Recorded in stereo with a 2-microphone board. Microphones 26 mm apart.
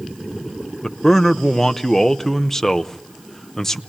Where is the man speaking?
10° left (ahead or behind), 0.8 m.